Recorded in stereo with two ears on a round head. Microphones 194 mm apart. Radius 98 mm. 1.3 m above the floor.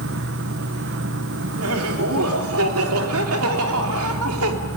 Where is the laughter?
70° right (ahead or behind), 3 m.